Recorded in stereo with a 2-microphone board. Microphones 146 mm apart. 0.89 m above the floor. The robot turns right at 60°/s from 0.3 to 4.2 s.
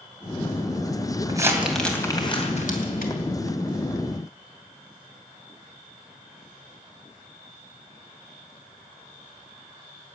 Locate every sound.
1.3 s crumpling: 25° right (ahead or behind), 2.5 m; by 3.1 s 80° left, 2.5 m